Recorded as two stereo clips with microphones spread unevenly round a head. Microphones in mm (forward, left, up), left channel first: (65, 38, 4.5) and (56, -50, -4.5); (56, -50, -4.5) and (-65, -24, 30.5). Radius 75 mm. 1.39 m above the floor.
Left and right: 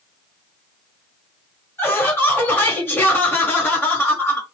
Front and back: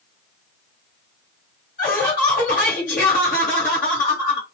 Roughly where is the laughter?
Ahead.